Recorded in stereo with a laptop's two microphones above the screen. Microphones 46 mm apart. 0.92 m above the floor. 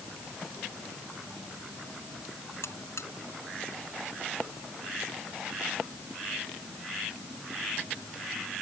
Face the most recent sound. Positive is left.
turn(degrees=70)  # may be behind; listen again after turning